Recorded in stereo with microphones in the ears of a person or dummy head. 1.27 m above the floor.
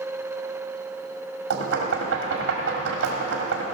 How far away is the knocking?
About 1.8 m.